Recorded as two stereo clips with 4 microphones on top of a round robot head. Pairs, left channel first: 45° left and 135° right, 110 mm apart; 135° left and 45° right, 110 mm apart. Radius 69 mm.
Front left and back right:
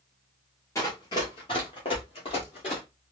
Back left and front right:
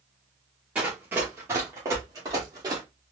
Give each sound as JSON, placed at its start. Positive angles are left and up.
{"t": 0.8, "sound": "running footsteps", "azimuth_deg": 20, "distance_m": 1.3}